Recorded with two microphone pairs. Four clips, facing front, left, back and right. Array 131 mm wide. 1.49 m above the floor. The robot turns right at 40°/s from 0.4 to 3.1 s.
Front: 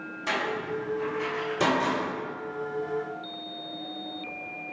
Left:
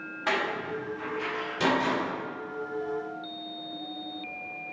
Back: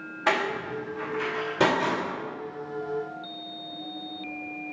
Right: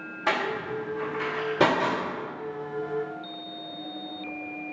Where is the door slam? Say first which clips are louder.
Right 2 dB, back 3 dB; straight behind, 4.5 m; by 2.0 s 115° right, 4.5 m.